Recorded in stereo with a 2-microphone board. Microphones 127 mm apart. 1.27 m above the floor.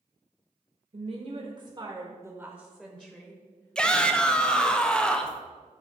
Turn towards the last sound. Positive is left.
turn(degrees=5)  # may be behind; listen again after turning